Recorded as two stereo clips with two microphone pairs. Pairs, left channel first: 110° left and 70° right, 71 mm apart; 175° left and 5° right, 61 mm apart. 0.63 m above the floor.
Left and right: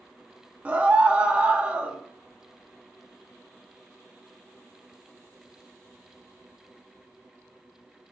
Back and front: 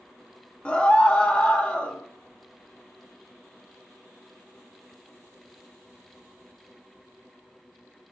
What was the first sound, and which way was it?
A scream, 125° right.